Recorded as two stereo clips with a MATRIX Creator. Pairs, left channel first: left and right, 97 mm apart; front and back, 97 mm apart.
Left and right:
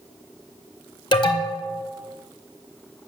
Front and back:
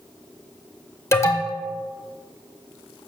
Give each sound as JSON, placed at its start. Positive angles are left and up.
{"t": 1.1, "sound": "an alarm", "azimuth_deg": 60, "distance_m": 1.5}